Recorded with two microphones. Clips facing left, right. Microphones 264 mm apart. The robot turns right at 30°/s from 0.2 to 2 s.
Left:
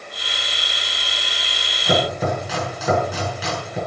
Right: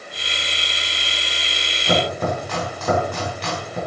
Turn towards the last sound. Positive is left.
turn(degrees=5)  # may be behind; listen again after turning